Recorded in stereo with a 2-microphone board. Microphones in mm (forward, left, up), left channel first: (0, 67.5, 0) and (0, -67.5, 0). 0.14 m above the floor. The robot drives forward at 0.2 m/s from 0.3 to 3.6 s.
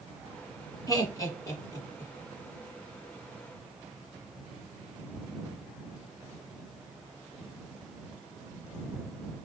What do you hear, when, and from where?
0.9 s laughter: 25° left (ahead or behind), 1.1 m